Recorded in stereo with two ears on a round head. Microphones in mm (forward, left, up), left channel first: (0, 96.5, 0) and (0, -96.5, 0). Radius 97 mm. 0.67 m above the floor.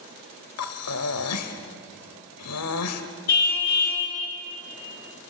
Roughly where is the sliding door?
No sliding door in this recording.